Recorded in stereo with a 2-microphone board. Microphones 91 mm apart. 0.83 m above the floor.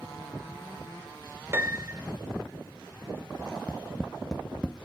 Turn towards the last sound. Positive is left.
turn(degrees=10)  # may be behind; listen again after turning